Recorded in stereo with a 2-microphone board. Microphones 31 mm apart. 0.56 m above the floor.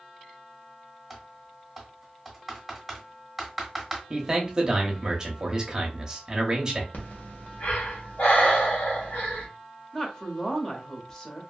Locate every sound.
1.1 s typing on a keyboard: centre (ahead or behind), 1.0 m
4.1 s a man speaking: 20° right (ahead or behind), 0.8 m
6.9 s breathing: 75° left (ahead or behind), 1.0 m
9.9 s a woman speaking: 20° left (ahead or behind), 0.8 m